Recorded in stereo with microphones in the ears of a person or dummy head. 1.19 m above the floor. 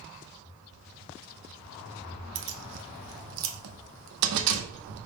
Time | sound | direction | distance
2.4 | keys jangling | 75° right (ahead or behind) | 0.7 m